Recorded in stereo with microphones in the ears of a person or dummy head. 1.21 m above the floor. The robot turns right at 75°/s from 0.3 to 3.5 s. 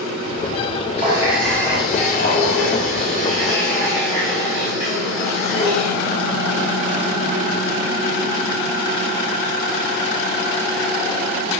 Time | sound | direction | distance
1.0 | a running tap | 35° right | 2 m